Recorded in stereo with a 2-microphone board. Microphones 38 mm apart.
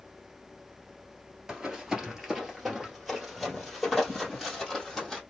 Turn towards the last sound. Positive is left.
turn(degrees=10)  # may be behind; listen again after turning